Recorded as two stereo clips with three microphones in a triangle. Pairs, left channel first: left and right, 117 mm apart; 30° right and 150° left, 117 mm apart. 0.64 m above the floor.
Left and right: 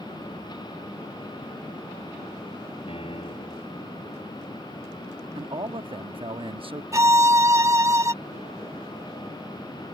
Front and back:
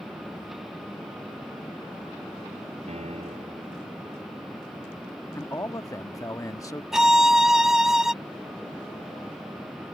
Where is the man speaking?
80° right.